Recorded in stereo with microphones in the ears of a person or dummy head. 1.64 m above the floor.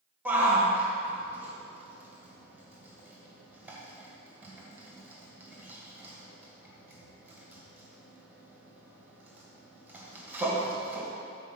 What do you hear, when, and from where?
0.2 s a shout: 5° right (ahead or behind), 1.8 m